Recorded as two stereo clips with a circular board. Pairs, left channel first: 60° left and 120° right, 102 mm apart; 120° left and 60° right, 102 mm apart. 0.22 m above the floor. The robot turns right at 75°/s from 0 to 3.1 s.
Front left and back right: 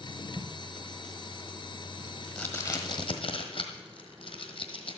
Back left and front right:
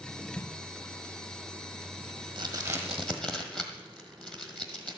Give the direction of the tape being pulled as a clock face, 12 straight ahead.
6 o'clock.